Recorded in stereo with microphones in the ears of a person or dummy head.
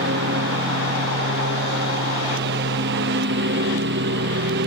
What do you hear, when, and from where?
0.0 s a lawn mower: 70° right (ahead or behind)